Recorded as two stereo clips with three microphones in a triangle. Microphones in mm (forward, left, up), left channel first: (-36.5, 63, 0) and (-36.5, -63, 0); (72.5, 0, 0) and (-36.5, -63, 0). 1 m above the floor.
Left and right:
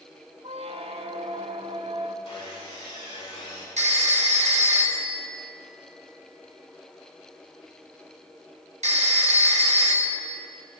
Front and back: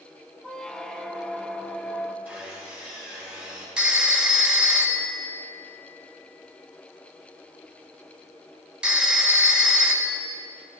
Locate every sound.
0.4 s a squeak: 55° right, 0.6 m
2.2 s sawing: 135° left, 3.5 m
3.8 s a phone ringing: 65° right, 0.9 m